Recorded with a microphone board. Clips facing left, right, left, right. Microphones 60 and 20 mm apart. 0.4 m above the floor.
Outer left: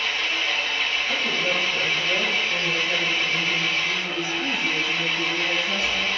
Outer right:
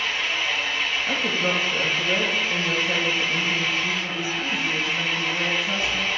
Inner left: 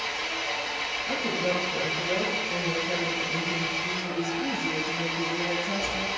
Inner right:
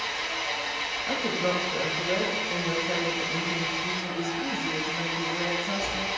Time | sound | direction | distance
0.0 | an engine running | 15° right (ahead or behind) | 1.9 m
1.1 | a woman speaking | 55° right (ahead or behind) | 2.0 m
4.0 | a woman speaking | 35° right (ahead or behind) | 2.5 m